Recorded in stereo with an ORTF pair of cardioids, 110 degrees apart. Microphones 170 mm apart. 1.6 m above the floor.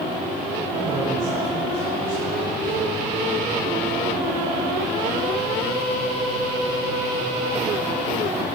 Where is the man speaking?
55° right, 5 m.